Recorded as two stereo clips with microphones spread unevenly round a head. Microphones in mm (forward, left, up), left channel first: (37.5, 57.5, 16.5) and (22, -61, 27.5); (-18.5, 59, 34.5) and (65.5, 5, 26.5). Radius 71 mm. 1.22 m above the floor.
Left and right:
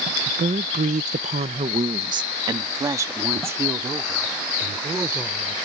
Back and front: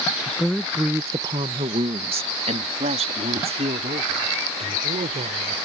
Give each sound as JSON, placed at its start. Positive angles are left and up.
{"t": 0.3, "sound": "a woman speaking", "azimuth_deg": -140}